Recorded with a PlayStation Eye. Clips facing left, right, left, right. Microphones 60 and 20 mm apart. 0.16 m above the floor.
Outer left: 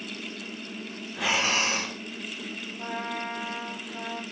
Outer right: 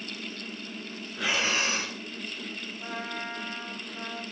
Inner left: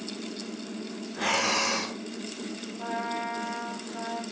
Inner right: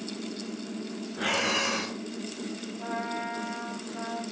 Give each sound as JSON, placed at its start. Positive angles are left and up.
{"t": 1.2, "sound": "breathing", "side_deg": 75, "distance_m": 3.5}
{"t": 2.8, "sound": "a trumpet", "side_deg": 70, "distance_m": 3.0}